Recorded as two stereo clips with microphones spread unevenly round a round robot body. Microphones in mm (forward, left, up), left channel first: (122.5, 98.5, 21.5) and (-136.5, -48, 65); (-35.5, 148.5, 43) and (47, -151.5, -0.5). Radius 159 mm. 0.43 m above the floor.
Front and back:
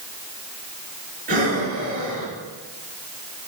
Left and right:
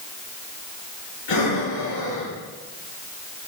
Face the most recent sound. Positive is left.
turn(degrees=145)